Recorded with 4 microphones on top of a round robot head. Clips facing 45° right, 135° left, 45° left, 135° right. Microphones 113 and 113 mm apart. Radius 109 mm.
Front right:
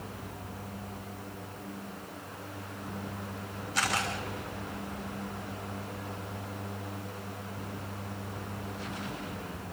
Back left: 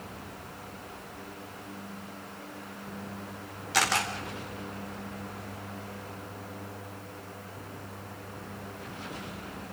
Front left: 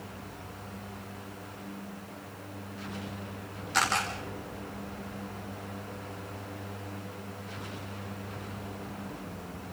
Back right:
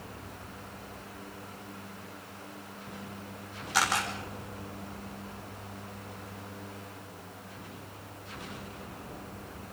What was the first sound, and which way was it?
A camera shutter, 140° left.